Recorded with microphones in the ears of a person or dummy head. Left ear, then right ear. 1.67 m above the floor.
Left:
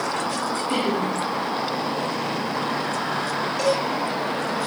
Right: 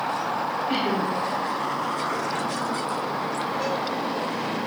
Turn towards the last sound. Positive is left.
turn(degrees=40)  # may be behind; listen again after turning